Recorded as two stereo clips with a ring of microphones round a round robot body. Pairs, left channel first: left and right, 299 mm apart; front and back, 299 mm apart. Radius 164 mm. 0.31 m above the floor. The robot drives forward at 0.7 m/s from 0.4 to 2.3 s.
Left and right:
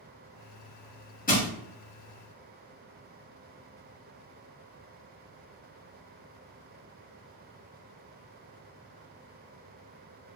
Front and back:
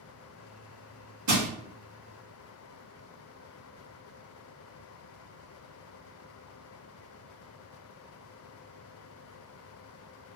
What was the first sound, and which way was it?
Crushing, 150° left.